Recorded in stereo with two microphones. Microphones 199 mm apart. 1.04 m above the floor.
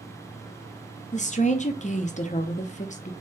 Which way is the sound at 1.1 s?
35° left (ahead or behind).